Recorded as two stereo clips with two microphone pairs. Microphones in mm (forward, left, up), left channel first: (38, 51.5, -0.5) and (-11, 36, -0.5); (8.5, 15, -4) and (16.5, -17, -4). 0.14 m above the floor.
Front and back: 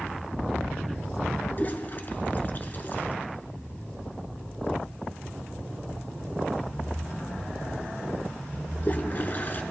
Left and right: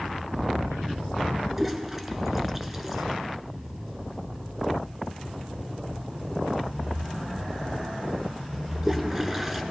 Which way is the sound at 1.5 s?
Straight ahead.